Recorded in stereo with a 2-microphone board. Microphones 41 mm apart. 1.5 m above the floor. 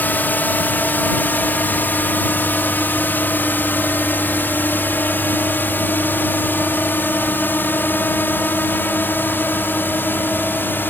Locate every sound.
0.0 s a drone: 50° left (ahead or behind); by 10.9 s 55° left (ahead or behind)